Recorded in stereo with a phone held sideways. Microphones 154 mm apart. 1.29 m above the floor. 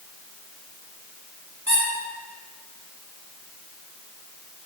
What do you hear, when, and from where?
1.7 s a squeak: 40° left (ahead or behind), 1.1 m